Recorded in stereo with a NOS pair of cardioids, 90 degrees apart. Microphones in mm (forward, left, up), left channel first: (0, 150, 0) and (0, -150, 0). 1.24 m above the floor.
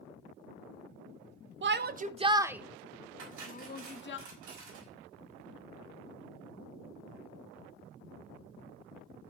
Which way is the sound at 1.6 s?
40° right.